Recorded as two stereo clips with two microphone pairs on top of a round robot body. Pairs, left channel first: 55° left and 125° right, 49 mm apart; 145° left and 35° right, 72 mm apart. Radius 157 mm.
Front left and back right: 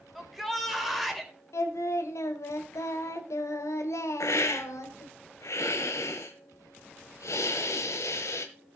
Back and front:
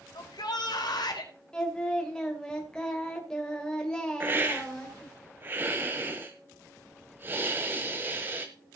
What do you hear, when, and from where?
0.1 s a shout: 145° left, 4 m
1.5 s singing: 65° left, 1.9 m
4.2 s a hiss: 30° left, 1.5 m